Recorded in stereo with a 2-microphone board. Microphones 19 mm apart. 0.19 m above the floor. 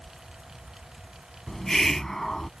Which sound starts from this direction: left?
A hiss, at 1.5 s.